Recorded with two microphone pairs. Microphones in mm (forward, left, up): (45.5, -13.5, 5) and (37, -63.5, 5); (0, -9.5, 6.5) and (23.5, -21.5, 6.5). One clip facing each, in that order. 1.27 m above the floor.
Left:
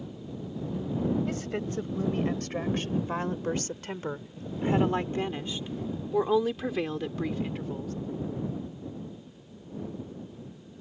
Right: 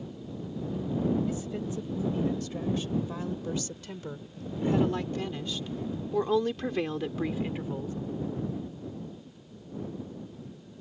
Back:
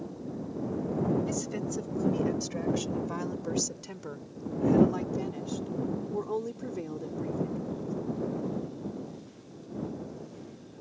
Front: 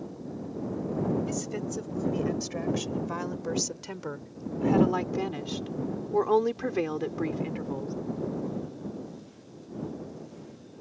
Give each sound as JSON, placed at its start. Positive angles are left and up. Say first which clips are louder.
{"t": 1.3, "sound": "a woman speaking", "louder": "left 1 dB, even", "azimuth_deg": 60}